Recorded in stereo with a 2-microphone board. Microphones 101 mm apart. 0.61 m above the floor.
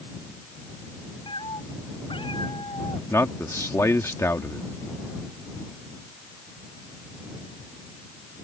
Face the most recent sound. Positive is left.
turn(degrees=25)  # may be behind; listen again after turning